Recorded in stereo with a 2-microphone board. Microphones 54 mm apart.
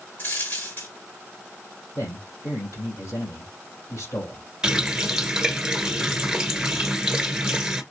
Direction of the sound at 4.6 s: 15° right (ahead or behind).